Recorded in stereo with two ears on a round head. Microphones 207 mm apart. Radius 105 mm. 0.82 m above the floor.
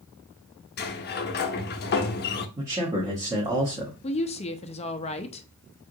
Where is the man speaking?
15° right (ahead or behind), 1.2 m.